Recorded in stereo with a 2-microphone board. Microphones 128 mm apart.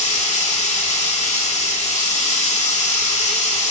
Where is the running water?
70° left (ahead or behind), 3 m.